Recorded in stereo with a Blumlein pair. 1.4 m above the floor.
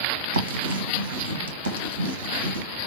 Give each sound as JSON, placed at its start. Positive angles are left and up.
{"t": 0.3, "sound": "writing", "azimuth_deg": -60, "distance_m": 1.0}